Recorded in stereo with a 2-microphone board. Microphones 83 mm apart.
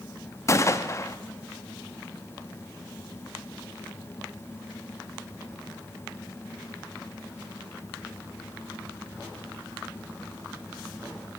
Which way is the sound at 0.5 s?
35° left (ahead or behind).